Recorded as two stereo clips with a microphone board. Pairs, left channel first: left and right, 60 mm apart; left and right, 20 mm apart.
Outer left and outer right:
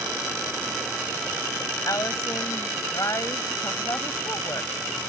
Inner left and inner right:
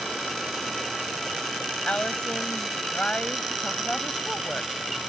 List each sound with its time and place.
1.9 s a woman speaking: 65° left (ahead or behind)